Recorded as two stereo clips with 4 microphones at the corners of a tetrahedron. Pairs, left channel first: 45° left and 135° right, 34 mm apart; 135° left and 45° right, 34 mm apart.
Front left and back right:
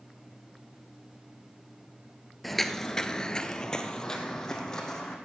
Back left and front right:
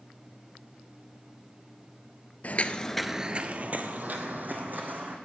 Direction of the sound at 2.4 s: 130° left.